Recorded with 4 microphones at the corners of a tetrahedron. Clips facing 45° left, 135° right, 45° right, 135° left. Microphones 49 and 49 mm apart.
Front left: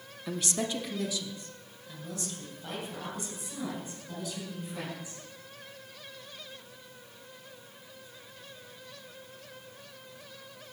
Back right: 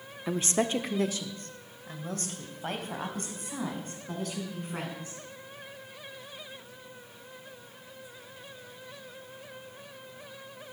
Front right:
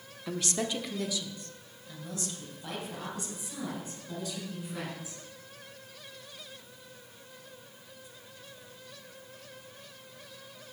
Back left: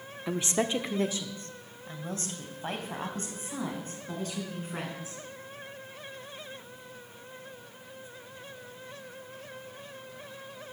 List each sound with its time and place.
0.3 s a woman speaking: 175° right, 0.7 m; by 5.2 s straight behind, 5.5 m